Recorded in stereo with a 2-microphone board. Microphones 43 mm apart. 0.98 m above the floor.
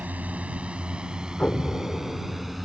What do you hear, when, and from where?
0.0 s a drone: 40° right (ahead or behind); by 2.6 s 5° right (ahead or behind)
1.4 s an explosion: 40° left (ahead or behind)